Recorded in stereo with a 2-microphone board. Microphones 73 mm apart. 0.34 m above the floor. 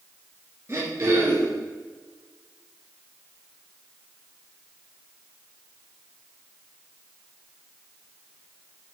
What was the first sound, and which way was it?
Throat clearing, 35° right (ahead or behind).